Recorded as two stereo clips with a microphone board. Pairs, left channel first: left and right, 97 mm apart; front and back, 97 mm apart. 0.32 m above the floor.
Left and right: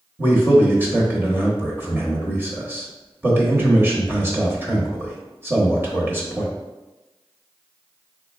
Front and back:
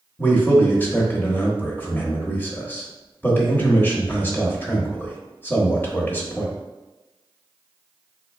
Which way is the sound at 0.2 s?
45° right.